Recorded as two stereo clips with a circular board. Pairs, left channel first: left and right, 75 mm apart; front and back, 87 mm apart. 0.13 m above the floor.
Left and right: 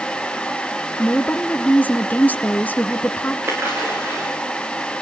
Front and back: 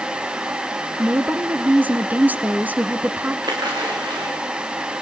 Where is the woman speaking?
130° left, 1.2 m.